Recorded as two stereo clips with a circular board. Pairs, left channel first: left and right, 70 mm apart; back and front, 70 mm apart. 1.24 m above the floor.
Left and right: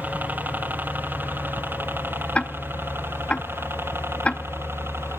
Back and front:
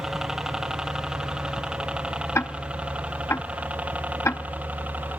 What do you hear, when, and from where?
0.0 s a helicopter: 75° right; by 5.2 s 55° right
2.4 s ticking: 155° left